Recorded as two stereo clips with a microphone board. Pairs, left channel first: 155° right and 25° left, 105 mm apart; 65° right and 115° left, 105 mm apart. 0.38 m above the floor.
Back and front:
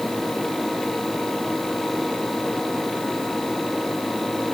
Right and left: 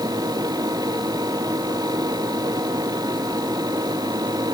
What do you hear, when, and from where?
Only background noise.